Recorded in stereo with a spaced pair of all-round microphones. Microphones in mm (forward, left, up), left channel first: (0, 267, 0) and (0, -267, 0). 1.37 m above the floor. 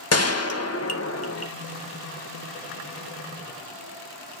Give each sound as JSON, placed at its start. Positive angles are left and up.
{"t": 0.1, "sound": "a gunshot", "side_deg": 30, "distance_m": 1.1}